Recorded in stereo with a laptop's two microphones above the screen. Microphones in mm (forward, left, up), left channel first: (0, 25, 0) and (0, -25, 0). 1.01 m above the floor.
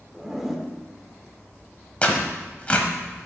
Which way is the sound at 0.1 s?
5° right (ahead or behind).